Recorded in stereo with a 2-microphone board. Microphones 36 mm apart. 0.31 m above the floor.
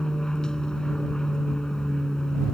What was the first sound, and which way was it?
An aircraft, 20° left (ahead or behind).